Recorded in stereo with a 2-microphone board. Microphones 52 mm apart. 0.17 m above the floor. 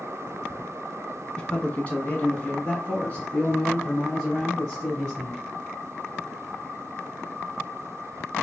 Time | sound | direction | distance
1.4 | a man speaking | 20° left (ahead or behind) | 1.4 m